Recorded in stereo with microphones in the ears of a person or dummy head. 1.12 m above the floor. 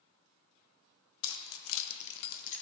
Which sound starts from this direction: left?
Keys jangling, at 1.2 s.